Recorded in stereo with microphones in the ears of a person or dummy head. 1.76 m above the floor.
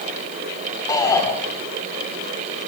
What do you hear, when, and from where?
0.9 s a shout: 15° left (ahead or behind), 6.5 m